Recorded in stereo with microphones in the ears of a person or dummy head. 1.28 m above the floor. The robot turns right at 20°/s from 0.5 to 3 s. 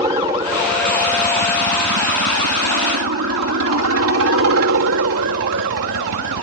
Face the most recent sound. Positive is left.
turn(degrees=-65)  # may be behind; listen again after turning